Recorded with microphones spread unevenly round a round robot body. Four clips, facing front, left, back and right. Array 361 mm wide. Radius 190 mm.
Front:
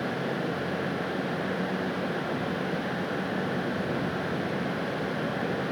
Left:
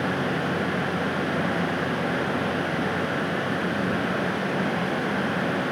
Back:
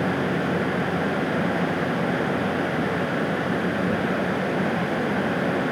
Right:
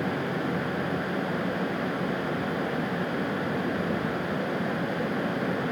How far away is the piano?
I don't hear a piano.